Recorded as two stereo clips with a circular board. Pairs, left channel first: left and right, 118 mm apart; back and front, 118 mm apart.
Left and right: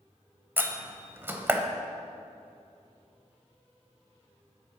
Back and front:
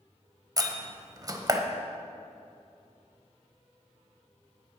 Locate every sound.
0.6 s a door slam: 30° right, 0.9 m